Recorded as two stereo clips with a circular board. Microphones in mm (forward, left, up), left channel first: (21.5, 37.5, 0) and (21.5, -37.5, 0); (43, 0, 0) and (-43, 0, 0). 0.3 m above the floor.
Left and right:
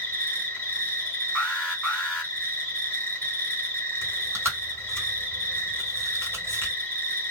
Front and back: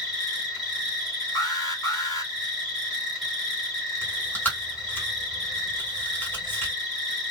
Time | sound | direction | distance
0.0 | an insect | 85° left | 1.6 m
1.4 | an alarm | 20° left | 1.8 m
4.0 | chewing | 55° right | 1.8 m